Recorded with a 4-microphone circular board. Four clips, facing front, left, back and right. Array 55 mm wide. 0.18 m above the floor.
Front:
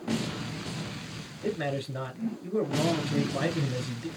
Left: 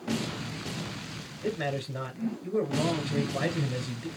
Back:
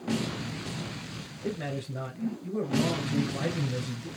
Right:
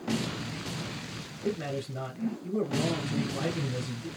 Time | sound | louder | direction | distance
1.4 | a man speaking | left 1 dB, front 3 dB | 40° left | 2 m